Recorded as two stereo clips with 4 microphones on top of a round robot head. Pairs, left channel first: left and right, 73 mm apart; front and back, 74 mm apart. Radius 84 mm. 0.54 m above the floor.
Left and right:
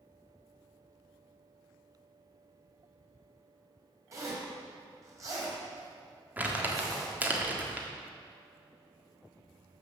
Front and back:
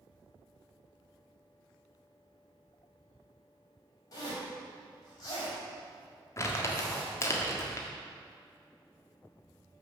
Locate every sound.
4.1 s a zipper: 45° right, 4 m
6.4 s crumpling: 30° right, 1.7 m